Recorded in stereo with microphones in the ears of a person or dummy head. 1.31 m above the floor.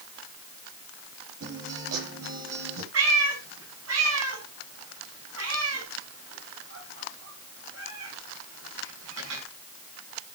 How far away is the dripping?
I don't hear dripping.